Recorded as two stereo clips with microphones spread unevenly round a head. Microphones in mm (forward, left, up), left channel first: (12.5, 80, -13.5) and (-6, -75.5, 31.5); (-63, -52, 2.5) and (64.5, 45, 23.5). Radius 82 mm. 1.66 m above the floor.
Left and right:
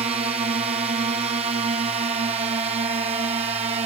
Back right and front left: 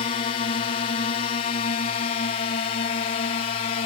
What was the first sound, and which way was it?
A drone, 150° right.